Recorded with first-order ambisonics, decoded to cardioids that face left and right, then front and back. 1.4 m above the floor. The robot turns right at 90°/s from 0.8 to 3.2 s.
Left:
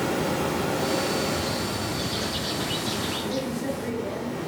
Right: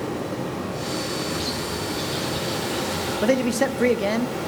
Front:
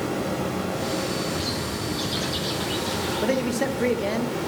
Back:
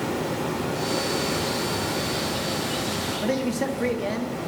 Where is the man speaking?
80° right, 0.6 m.